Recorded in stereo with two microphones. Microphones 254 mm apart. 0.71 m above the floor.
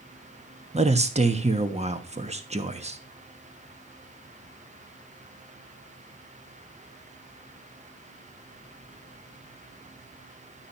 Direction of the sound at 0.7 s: 25° right (ahead or behind).